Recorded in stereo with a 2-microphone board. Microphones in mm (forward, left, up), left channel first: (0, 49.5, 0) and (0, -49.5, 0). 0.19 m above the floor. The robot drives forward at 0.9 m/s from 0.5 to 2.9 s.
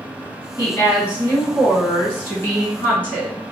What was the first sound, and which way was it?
A woman speaking, 30° left (ahead or behind).